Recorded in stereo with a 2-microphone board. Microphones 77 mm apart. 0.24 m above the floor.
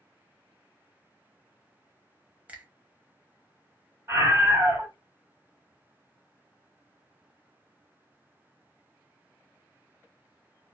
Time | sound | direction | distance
2.5 | a finger snap | 20° right (ahead or behind) | 0.7 m
4.1 | a scream | 30° right (ahead or behind) | 1.9 m